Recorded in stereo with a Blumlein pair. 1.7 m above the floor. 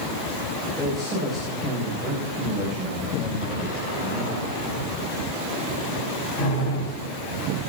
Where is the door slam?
40° left, 8.5 m.